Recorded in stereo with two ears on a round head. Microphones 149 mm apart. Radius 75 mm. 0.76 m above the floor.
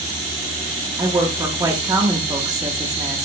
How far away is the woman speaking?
About 0.9 m.